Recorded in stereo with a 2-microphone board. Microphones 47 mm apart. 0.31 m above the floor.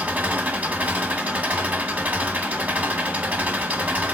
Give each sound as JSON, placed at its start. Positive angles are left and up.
{"t": 0.0, "sound": "an engine running", "side_deg": -40, "distance_m": 1.3}